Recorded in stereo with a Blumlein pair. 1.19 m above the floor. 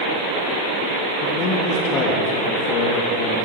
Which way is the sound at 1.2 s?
35° left.